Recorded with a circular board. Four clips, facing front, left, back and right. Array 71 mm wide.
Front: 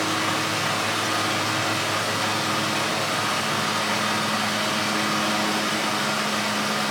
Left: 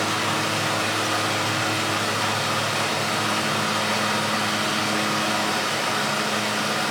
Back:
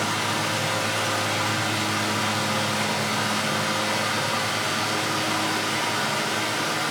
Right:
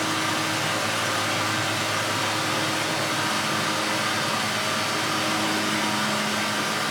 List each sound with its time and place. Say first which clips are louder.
0.0 s running water: left 2 dB, front 1 dB; 70° left, 1.8 m